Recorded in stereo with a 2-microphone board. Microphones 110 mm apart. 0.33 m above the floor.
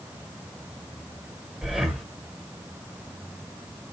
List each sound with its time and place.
1.6 s breathing: 5° right (ahead or behind), 1.0 m